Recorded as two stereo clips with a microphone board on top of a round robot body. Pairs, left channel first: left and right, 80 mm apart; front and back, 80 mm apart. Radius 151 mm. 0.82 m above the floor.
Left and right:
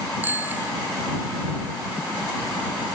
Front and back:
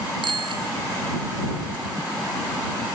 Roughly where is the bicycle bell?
Behind.